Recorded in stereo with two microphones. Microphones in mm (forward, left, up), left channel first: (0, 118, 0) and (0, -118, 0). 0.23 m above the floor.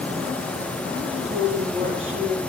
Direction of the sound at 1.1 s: 55° right (ahead or behind).